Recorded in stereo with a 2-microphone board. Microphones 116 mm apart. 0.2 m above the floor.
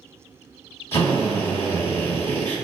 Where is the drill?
20° left (ahead or behind), 1.5 m.